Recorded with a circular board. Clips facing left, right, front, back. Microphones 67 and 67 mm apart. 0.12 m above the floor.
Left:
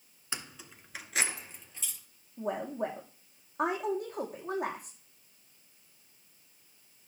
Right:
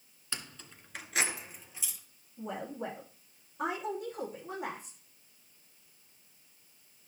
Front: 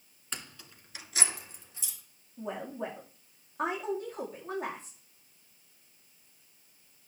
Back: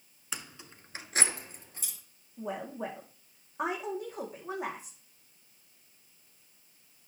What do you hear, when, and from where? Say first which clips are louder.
0.3 s keys jangling: left 2 dB, back 1 dB; 105° left, 0.8 m; by 2.0 s 170° right, 1.8 m
2.4 s a woman speaking: left 5 dB, even; 100° left, 5.5 m